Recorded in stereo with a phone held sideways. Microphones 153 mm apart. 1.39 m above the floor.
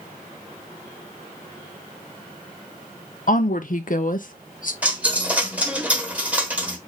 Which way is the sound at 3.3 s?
60° left (ahead or behind).